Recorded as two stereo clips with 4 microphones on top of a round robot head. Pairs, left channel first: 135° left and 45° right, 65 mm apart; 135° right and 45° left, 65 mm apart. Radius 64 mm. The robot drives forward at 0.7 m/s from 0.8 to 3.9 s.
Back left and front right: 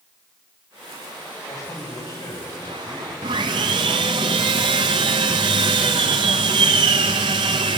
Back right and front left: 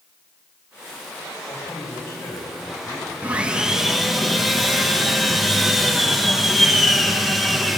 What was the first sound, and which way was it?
A man speaking, 175° left.